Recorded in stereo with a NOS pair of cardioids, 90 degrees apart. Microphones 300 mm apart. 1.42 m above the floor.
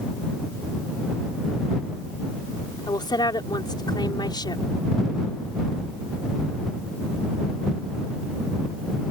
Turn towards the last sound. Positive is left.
turn(degrees=15)